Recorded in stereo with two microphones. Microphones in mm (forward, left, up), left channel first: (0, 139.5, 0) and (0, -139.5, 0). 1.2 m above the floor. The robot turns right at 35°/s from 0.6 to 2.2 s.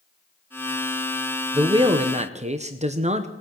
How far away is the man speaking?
About 0.7 m.